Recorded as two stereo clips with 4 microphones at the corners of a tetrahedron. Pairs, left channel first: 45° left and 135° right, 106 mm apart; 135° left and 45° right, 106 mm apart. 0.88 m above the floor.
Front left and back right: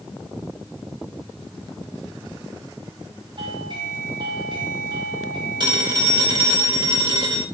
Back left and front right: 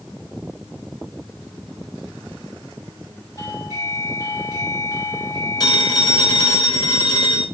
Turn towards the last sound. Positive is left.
turn(degrees=-175)